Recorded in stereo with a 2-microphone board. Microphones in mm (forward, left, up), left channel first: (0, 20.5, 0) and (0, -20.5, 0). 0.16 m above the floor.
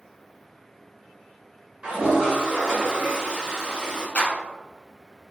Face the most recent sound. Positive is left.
turn(degrees=35)  # may be behind; listen again after turning